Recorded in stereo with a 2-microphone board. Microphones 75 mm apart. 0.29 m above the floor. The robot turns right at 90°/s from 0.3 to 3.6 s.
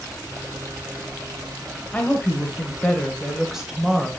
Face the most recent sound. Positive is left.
turn(degrees=-5)  # may be behind; listen again after turning